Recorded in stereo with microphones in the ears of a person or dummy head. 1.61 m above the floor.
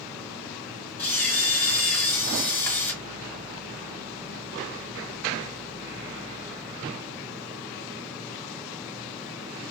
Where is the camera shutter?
10° left (ahead or behind), 3 m.